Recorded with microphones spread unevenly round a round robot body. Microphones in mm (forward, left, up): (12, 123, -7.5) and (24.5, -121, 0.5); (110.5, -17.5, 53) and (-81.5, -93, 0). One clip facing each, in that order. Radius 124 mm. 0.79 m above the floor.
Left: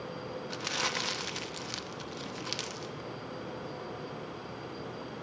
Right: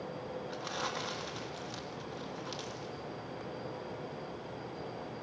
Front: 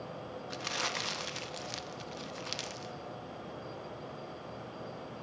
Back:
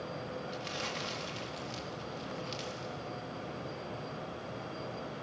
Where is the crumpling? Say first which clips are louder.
Left 2 dB, back 1 dB; 55° left, 0.8 m.